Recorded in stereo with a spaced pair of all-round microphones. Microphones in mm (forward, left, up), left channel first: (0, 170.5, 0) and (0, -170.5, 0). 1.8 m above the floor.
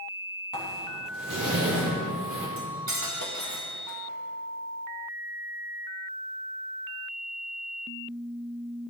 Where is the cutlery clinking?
55° right (ahead or behind), 1.6 m.